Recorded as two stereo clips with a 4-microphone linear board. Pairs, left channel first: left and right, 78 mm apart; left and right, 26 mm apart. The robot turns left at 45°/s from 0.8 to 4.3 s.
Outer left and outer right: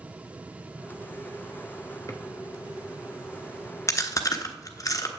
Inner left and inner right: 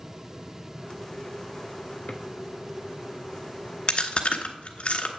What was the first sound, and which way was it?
A drawer, 40° left (ahead or behind).